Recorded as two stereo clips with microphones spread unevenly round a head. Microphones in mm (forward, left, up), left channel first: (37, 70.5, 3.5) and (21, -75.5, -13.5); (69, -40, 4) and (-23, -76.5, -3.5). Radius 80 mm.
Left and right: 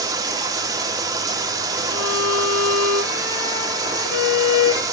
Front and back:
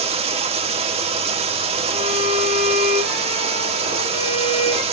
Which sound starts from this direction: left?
A violin, at 1.9 s.